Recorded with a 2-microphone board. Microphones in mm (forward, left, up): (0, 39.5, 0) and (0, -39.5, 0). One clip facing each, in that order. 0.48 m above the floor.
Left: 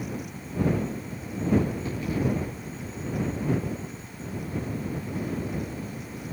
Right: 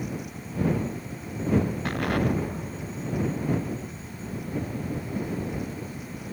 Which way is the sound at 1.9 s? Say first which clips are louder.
Right 2 dB; 65° right (ahead or behind).